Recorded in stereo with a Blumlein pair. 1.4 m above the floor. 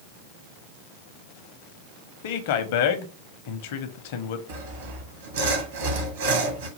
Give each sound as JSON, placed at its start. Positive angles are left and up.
{"t": 2.2, "sound": "a man speaking", "azimuth_deg": 50, "distance_m": 0.7}
{"t": 4.5, "sound": "sawing", "azimuth_deg": -60, "distance_m": 1.1}